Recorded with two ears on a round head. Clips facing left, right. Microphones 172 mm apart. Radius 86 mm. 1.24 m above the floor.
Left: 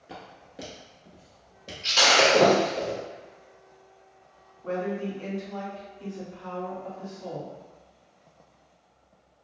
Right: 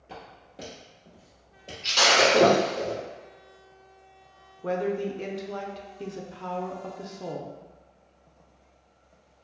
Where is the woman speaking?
75° right (ahead or behind), 0.6 m.